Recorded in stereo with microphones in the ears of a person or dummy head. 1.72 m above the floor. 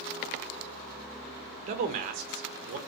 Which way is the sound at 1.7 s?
45° right (ahead or behind).